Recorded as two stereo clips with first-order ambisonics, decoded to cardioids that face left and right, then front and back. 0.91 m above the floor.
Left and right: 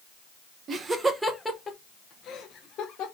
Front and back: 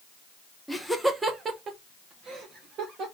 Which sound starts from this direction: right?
Laughter, at 0.7 s.